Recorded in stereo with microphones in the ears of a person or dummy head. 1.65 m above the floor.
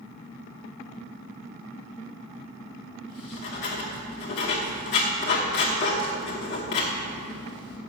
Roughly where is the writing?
Left.